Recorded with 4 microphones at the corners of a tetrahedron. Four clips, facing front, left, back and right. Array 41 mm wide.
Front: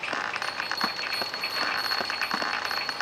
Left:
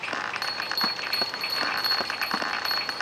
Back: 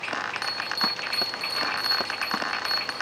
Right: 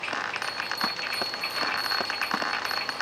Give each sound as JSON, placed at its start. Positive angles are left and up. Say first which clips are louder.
{"t": 0.4, "sound": "a bell", "louder": "left 2 dB, back 2 dB", "azimuth_deg": 100, "distance_m": 2.5}